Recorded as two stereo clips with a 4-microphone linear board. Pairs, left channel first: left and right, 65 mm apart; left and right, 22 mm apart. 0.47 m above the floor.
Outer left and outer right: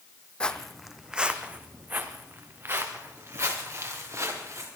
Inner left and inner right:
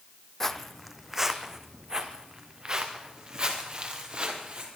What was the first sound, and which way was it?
Footsteps, 15° left (ahead or behind).